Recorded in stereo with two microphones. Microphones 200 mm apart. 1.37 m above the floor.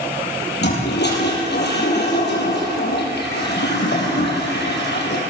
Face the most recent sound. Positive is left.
turn(degrees=60)  # may be behind; listen again after turning